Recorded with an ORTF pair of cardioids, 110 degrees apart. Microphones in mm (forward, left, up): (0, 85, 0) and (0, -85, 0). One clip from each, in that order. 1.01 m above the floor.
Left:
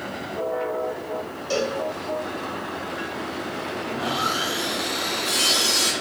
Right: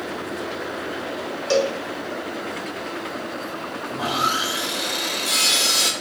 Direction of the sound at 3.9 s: 25° right.